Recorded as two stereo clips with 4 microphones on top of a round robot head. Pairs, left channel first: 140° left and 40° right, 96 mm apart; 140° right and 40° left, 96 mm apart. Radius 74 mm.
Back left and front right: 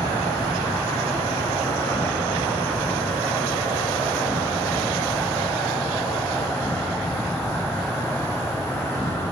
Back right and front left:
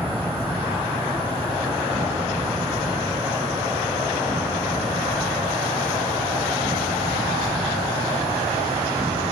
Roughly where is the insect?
Left.